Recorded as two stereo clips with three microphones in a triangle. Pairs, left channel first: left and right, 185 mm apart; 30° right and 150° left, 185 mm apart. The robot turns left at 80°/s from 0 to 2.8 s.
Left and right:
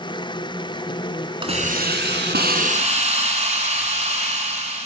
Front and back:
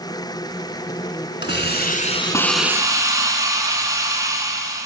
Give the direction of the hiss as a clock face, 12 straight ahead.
1 o'clock.